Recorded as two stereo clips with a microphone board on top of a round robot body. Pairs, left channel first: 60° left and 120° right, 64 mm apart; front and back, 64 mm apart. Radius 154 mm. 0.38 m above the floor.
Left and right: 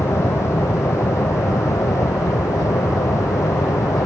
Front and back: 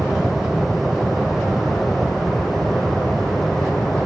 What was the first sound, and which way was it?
An aircraft, 95° left.